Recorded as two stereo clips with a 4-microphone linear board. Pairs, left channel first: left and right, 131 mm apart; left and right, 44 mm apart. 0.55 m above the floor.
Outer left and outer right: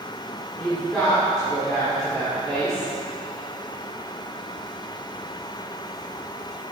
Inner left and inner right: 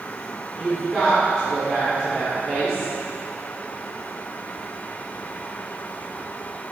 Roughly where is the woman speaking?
Centre.